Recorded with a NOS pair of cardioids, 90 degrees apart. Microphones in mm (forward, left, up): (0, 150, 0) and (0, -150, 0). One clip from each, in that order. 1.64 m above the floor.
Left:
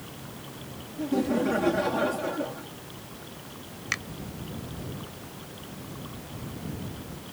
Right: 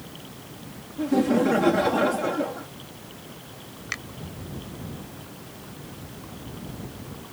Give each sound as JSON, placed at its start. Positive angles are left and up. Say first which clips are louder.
{"t": 1.0, "sound": "laughter", "louder": "right 5 dB", "azimuth_deg": -35}
{"t": 3.9, "sound": "a finger snap", "louder": "left 2 dB", "azimuth_deg": 20}